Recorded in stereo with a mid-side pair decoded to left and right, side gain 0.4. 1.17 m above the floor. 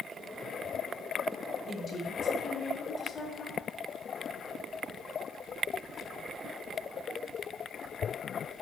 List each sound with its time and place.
1.7 s a woman speaking: 45° left, 1.5 m